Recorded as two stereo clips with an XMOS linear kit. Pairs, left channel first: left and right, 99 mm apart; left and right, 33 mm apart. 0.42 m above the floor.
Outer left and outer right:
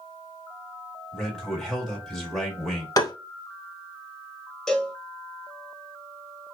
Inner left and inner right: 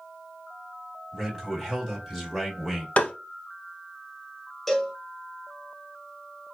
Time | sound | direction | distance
1.1 | a man speaking | 5° left (ahead or behind) | 1.4 m
3.0 | tapping | 40° left (ahead or behind) | 0.5 m
4.7 | a cowbell | 5° left (ahead or behind) | 0.8 m